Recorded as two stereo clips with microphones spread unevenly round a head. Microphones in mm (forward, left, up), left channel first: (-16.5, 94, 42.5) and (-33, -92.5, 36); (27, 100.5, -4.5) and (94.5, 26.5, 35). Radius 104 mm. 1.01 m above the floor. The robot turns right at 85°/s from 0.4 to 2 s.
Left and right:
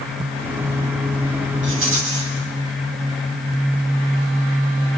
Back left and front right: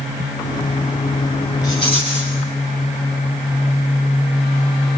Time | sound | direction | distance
1.6 | a rattle | 125° right | 9 m